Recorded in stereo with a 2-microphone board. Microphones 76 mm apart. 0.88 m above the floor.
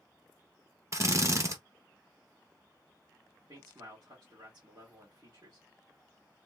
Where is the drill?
40° right (ahead or behind), 0.7 m.